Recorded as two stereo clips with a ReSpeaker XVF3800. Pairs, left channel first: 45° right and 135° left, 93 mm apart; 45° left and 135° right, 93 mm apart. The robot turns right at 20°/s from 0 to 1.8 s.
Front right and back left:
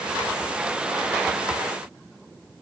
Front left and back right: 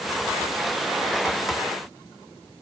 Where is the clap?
No clap in this recording.